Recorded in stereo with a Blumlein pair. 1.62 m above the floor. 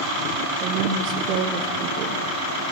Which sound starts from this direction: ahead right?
A woman speaking, at 0.6 s.